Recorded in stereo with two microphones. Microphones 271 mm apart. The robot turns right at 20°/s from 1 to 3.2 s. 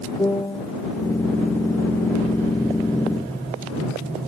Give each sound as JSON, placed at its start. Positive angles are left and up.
{"t": 0.2, "sound": "a piano", "side_deg": 10}